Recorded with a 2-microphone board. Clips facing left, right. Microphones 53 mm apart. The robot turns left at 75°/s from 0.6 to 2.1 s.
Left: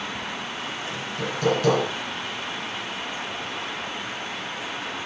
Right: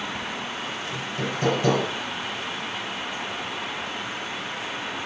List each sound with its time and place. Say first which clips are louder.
0.9 s hammering: right 1 dB; 105° right, 6 m; by 1.9 s 175° right, 6 m